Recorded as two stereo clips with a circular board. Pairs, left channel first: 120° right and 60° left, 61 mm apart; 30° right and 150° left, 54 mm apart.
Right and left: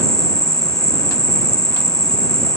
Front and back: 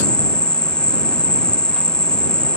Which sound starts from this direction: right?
An insect, at 0.0 s.